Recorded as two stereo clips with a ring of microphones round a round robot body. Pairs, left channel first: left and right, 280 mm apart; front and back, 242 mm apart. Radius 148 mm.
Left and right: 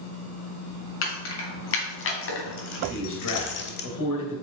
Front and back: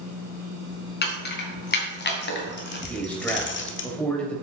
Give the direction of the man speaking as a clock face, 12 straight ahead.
9 o'clock.